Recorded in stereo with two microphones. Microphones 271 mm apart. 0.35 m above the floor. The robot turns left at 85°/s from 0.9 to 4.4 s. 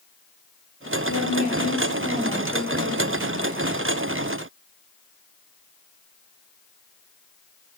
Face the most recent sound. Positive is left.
turn(degrees=-170)